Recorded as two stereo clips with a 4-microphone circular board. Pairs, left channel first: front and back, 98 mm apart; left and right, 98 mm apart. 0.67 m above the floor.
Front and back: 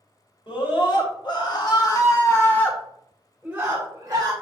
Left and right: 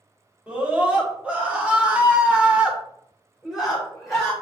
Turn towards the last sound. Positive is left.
turn(degrees=180)